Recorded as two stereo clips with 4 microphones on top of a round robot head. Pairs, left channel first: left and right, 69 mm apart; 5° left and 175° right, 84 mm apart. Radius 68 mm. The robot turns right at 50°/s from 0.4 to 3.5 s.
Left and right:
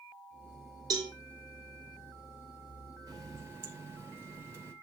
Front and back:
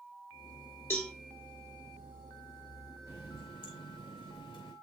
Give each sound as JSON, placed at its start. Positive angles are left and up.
{"t": 0.9, "sound": "a cowbell", "azimuth_deg": -65, "distance_m": 1.6}
{"t": 3.1, "sound": "a running tap", "azimuth_deg": -60, "distance_m": 2.5}